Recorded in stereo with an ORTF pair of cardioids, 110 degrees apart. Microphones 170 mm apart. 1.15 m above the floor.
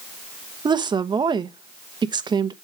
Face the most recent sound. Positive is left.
turn(degrees=-25)